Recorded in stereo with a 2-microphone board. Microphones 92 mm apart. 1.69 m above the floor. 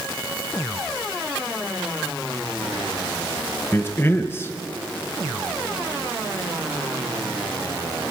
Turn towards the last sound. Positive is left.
turn(degrees=25)  # may be behind; listen again after turning